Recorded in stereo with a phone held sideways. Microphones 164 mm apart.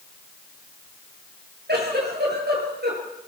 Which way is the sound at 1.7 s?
70° right (ahead or behind).